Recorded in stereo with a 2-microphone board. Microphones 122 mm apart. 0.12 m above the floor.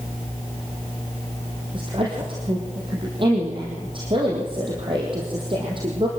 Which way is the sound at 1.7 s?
40° right (ahead or behind).